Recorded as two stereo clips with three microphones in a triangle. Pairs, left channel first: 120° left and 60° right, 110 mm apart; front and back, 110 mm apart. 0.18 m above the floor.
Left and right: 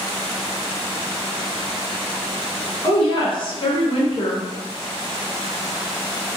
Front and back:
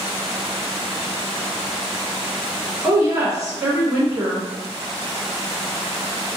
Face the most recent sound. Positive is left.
turn(degrees=135)